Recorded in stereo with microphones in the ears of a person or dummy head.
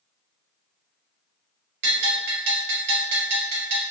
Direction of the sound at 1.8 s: 70° right (ahead or behind).